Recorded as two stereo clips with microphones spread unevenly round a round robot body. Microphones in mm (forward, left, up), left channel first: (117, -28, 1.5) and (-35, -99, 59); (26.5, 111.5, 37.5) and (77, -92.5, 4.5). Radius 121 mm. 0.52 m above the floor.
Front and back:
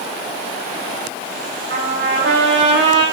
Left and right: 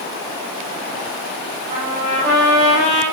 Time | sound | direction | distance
1.7 | a trumpet | 155° right | 8.5 m